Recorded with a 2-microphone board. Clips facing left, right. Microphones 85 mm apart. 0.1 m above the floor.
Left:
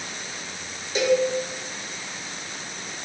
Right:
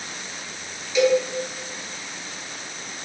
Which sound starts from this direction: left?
A cowbell, at 0.9 s.